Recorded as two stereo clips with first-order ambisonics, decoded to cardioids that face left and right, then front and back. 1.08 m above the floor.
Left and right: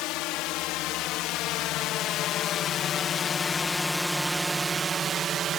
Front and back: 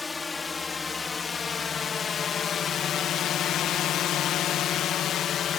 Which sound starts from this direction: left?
A drone, at 0.0 s.